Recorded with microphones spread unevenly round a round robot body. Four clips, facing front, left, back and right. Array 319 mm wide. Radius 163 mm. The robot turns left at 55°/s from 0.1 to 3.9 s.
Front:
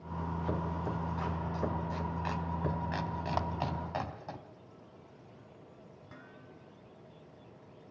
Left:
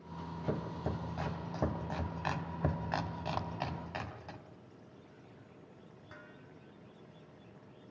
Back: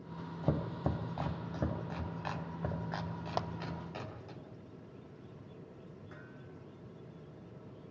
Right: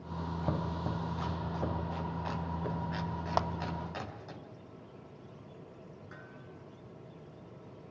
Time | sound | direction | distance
0.4 | chopping | 155° right | 3.5 m
3.4 | a clap | 140° right | 1.1 m
6.1 | dishes clattering | 30° left | 5.5 m